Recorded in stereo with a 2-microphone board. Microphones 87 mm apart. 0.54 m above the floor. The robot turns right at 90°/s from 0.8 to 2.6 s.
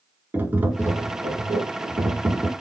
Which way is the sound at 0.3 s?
155° right.